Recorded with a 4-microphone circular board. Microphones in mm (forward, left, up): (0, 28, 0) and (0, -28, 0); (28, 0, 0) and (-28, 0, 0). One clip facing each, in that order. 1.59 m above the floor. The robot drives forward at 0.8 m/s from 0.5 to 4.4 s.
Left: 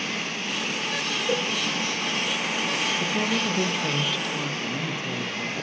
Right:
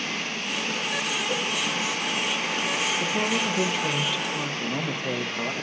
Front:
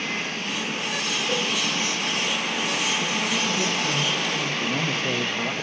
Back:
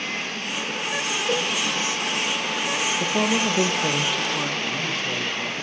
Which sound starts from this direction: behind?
A woman speaking, at 3.0 s.